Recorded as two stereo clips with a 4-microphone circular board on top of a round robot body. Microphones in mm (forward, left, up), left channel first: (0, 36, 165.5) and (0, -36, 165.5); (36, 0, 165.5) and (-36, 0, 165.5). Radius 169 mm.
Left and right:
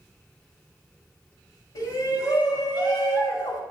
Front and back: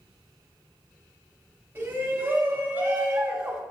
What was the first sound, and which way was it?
A shout, 120° left.